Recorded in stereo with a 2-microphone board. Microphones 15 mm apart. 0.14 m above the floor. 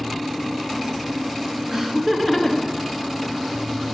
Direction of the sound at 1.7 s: 30° right (ahead or behind).